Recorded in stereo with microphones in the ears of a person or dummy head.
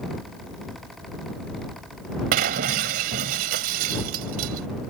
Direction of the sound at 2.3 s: 45° right (ahead or behind).